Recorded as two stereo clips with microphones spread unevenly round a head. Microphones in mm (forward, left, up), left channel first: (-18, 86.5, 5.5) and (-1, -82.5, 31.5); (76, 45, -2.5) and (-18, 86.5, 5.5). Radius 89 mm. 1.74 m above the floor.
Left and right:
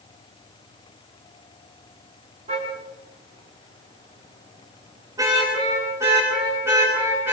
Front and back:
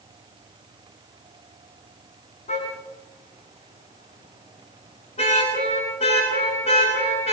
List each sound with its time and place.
2.5 s a car horn: 25° right, 9.5 m; by 7.3 s 5° right, 13.5 m